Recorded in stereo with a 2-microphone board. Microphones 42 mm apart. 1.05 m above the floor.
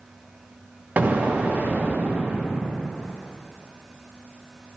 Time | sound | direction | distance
1.0 | an explosion | 45° right (ahead or behind) | 0.6 m